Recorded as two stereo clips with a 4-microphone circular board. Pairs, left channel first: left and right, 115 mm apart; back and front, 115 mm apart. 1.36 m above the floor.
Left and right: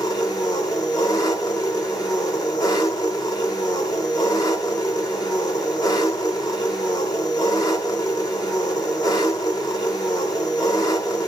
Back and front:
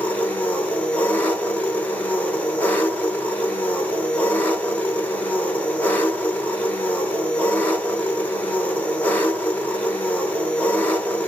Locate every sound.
0.0 s an engine running: 110° left, 1.2 m